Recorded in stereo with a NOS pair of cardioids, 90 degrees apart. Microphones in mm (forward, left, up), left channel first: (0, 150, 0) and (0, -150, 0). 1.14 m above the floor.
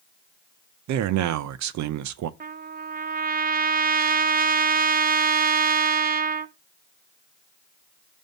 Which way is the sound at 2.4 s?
30° right.